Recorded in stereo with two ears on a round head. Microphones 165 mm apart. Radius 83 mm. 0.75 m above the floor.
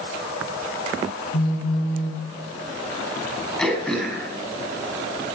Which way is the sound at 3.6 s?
5° left (ahead or behind).